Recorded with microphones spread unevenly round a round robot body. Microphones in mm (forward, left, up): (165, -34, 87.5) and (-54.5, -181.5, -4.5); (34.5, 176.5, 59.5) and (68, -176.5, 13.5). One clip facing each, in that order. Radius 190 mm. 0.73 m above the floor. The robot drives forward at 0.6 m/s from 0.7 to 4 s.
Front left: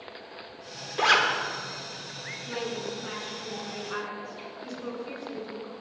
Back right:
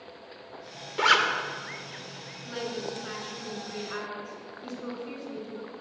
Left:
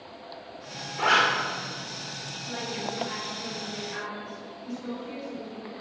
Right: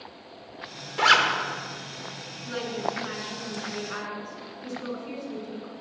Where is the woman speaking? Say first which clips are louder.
Front left 1 dB, right 4 dB; 80° right, 8.5 m; by 5.7 s 85° right, 8.5 m.